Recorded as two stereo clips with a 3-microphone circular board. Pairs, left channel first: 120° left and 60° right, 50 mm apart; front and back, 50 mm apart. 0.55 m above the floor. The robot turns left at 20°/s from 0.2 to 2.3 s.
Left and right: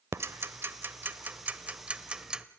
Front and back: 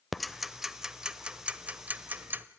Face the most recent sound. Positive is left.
turn(degrees=-130)